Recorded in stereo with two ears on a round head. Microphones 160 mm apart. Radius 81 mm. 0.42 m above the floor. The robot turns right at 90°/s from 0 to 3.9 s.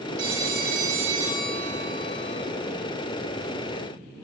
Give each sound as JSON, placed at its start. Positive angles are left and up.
{"t": 0.2, "sound": "a phone ringing", "azimuth_deg": -110, "distance_m": 4.0}